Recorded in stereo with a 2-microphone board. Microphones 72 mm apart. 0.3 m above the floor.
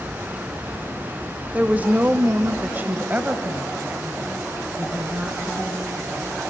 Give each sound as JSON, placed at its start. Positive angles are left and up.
{"t": 1.5, "sound": "a woman speaking", "side_deg": -20, "distance_m": 1.1}